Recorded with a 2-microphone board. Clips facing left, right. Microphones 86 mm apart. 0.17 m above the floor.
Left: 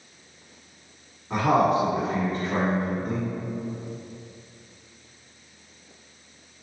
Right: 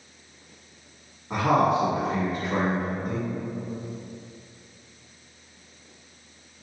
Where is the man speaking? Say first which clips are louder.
Left 1 dB; 10° right (ahead or behind), 1.7 m.